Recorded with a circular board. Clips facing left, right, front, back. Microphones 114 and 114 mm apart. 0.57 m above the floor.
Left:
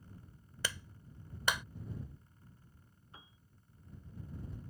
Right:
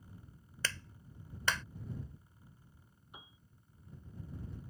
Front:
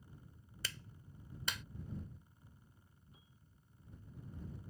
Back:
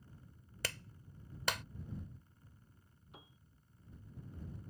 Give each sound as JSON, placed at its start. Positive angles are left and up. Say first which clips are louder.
{"t": 0.6, "sound": "a clap", "louder": "even, back 6 dB", "azimuth_deg": 165}
{"t": 3.1, "sound": "a piano", "louder": "right 2 dB, back 9 dB", "azimuth_deg": -165}